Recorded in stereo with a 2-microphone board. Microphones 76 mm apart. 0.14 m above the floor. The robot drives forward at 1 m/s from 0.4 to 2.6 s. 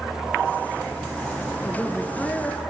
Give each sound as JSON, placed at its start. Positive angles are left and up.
{"t": 1.6, "sound": "a woman speaking", "side_deg": 15, "distance_m": 1.3}